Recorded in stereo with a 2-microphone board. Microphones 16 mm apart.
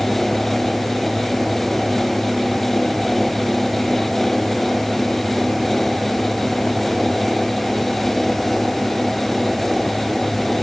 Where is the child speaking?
I don't hear a child speaking.